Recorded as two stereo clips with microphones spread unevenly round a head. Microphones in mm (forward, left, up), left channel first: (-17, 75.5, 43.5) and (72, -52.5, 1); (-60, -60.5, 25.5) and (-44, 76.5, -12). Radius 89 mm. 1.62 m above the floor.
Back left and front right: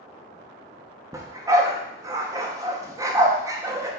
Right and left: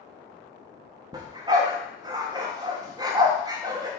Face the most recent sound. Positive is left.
turn(degrees=25)